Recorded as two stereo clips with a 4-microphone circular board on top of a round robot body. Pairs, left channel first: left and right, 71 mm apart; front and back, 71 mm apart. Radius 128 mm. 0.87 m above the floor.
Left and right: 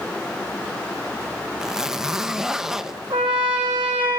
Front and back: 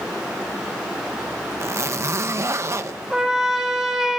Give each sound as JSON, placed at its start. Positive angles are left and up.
{"t": 1.6, "sound": "a zipper", "azimuth_deg": -170, "distance_m": 0.8}
{"t": 3.1, "sound": "a trumpet", "azimuth_deg": -95, "distance_m": 1.8}